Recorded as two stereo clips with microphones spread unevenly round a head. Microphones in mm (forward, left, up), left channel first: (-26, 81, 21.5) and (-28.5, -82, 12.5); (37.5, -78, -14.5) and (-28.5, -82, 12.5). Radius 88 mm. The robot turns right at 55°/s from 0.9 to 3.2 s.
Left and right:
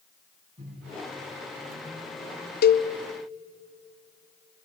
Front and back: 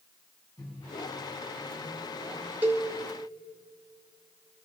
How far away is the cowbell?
About 0.8 m.